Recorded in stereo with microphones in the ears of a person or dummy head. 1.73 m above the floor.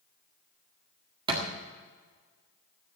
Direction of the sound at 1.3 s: 25° right (ahead or behind).